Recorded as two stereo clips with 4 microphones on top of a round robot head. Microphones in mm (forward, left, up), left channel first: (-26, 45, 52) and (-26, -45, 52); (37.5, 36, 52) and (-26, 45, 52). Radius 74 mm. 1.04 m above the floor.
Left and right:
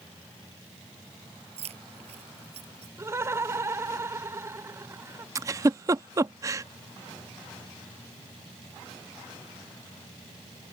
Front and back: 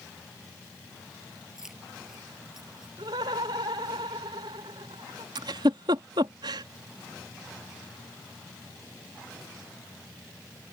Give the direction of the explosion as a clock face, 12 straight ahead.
No explosion in this recording.